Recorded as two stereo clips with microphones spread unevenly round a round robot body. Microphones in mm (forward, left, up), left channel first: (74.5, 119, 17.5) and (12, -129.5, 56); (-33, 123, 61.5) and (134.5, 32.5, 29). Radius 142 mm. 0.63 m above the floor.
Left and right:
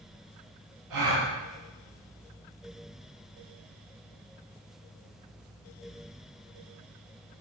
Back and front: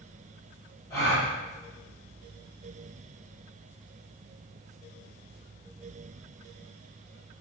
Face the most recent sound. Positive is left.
turn(degrees=-125)